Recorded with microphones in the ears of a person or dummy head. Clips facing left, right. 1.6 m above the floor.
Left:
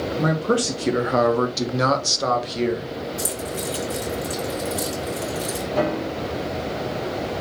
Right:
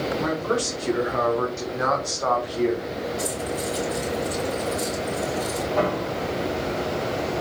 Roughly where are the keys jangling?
Left.